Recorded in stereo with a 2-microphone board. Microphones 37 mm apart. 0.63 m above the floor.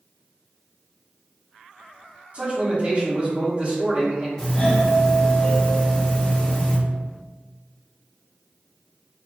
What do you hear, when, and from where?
2.3 s a man speaking: 40° right (ahead or behind), 1.6 m
4.4 s a doorbell: 15° left (ahead or behind), 1.5 m